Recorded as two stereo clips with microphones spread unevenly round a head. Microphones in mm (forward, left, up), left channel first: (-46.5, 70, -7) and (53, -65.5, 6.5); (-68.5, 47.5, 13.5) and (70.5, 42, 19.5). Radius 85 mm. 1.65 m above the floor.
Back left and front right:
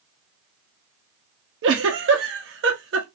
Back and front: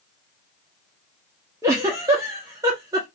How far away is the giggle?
About 1.0 m.